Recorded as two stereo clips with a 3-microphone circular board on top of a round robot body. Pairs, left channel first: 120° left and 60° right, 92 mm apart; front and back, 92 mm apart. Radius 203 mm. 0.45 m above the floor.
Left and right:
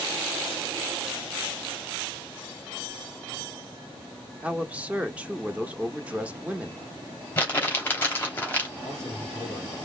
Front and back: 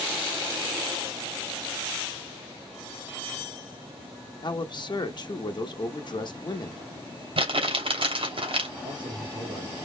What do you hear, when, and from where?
4.4 s a man speaking: 15° left, 1.4 m
7.4 s crumpling: 170° right, 2.5 m
8.8 s a man speaking: 155° right, 2.5 m